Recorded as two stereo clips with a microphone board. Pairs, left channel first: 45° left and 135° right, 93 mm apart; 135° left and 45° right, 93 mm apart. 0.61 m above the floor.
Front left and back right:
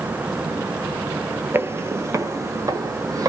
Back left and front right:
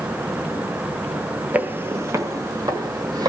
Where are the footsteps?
100° right, 0.6 m; by 3.3 s 85° right, 1.4 m.